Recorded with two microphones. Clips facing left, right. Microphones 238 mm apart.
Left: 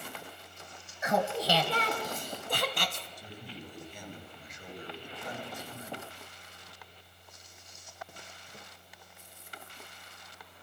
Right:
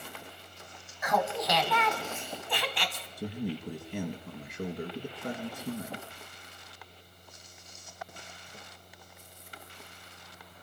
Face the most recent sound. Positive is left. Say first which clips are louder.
# right 11 dB
turn(degrees=-60)  # may be behind; listen again after turning